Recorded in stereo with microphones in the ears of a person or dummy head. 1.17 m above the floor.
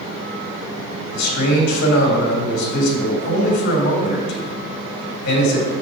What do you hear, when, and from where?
1.1 s a man speaking: 60° left (ahead or behind), 3.5 m